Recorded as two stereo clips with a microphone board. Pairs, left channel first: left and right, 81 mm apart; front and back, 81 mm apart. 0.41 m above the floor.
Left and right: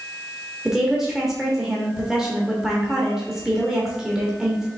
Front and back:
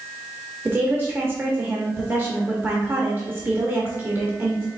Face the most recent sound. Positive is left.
turn(degrees=-165)